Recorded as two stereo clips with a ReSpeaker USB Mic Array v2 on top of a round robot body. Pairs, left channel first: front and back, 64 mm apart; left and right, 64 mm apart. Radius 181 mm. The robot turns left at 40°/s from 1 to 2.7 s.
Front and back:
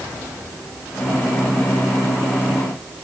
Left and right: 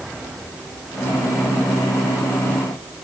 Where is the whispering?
I don't hear whispering.